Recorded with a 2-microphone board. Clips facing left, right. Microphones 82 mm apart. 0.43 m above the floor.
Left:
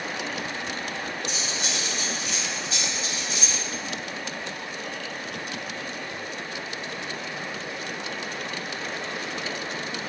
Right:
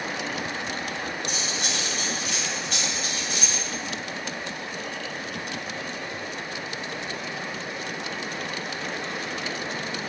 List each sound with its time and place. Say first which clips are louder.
1.3 s cutlery clinking: right 1 dB; 55° right (ahead or behind), 1.7 m